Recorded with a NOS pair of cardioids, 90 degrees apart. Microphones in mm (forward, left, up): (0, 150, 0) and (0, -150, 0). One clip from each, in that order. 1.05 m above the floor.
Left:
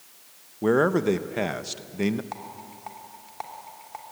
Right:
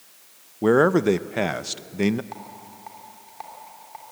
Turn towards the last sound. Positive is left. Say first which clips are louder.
# left 1 dB
turn(degrees=30)